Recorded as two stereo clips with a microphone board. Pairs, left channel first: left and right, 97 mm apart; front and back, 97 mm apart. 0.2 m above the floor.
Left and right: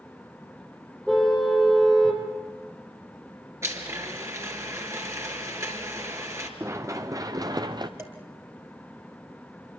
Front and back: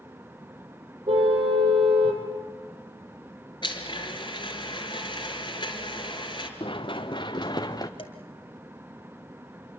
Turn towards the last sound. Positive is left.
turn(degrees=-25)